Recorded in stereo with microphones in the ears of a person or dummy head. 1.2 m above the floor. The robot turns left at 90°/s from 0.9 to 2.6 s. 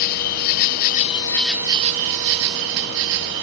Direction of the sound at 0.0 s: 55° left.